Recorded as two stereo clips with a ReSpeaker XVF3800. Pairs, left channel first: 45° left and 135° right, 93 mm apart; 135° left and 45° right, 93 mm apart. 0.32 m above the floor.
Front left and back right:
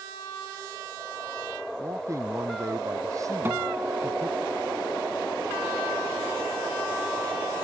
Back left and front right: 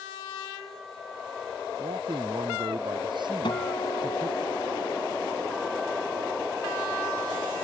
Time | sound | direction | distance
1.8 | a man speaking | 80° right | ?
3.5 | a guitar | 165° left | ?